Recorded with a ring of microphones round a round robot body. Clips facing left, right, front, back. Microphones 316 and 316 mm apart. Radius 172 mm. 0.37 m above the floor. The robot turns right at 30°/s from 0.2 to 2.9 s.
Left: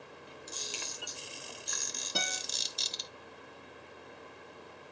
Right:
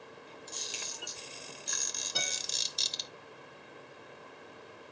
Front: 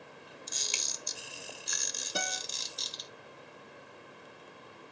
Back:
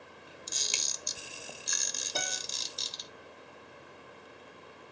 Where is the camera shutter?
170° left, 0.8 m; by 3.1 s 115° right, 0.8 m.